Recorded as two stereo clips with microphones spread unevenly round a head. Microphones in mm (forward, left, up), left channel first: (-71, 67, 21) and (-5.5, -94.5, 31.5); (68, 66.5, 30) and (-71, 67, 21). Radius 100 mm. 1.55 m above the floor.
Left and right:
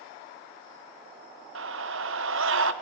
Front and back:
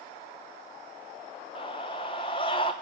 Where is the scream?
65° right, 1.0 m.